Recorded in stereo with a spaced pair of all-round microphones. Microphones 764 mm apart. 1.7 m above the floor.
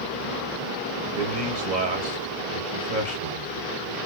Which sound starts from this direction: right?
A man speaking, at 1.1 s.